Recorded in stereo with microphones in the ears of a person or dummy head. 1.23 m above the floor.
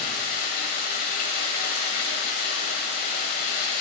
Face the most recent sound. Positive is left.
turn(degrees=35)  # may be behind; listen again after turning